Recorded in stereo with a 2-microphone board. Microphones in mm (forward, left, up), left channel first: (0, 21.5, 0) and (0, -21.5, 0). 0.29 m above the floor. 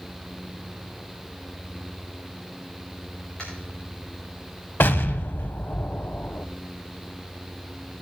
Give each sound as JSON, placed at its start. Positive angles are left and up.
{"t": 3.4, "sound": "tapping", "side_deg": 25, "distance_m": 6.0}
{"t": 4.8, "sound": "an explosion", "side_deg": 55, "distance_m": 0.7}